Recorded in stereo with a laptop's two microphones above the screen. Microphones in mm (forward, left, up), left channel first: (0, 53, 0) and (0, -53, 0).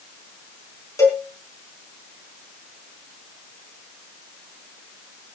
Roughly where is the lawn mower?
No lawn mower in this recording.